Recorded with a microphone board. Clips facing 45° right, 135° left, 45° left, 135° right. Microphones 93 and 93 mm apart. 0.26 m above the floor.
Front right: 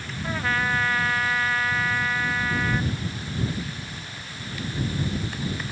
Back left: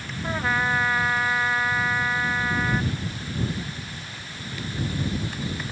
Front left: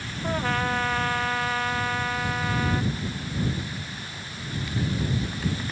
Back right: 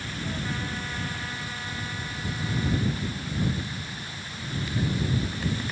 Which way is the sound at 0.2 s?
60° left.